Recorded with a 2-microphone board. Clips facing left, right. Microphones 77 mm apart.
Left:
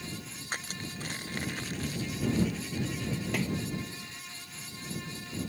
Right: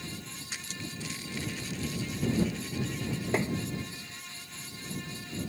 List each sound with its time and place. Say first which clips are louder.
0.5 s crushing: left 3 dB; 45° left (ahead or behind)
3.3 s tapping: right 4 dB; 30° right (ahead or behind)